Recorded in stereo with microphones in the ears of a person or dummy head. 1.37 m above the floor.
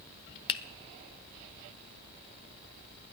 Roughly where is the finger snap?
Left.